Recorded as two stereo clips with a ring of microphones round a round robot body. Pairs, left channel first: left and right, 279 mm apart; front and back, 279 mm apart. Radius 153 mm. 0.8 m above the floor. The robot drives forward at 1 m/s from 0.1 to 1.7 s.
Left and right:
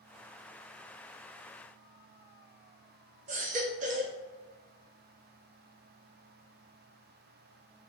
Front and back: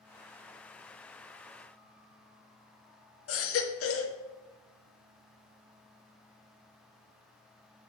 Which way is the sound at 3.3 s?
30° right.